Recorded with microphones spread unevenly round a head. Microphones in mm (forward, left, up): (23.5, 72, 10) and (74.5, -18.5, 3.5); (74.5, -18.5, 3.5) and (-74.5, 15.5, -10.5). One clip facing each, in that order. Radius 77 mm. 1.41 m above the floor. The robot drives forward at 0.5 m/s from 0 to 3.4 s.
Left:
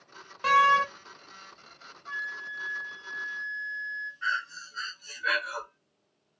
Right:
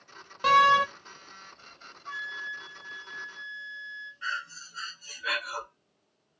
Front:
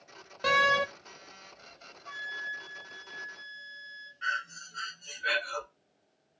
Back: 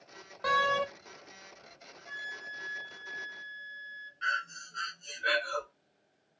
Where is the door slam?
5° right, 0.6 m; by 0.9 s 10° right, 0.5 m.